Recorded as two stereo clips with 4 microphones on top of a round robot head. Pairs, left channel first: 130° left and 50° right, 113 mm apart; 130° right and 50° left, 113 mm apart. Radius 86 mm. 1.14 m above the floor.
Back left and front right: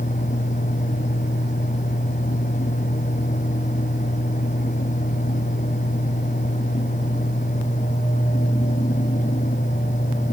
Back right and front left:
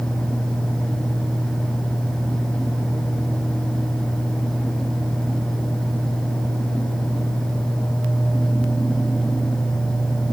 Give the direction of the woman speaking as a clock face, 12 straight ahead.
I don't hear a woman speaking.